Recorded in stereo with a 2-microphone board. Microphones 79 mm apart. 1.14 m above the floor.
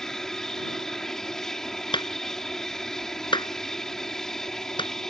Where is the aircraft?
5° left (ahead or behind).